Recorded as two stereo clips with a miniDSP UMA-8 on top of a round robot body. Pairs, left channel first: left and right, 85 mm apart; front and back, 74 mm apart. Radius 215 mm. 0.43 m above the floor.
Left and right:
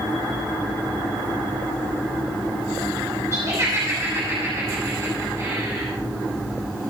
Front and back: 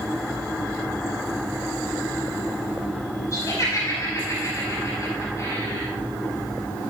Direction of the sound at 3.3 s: 40° right.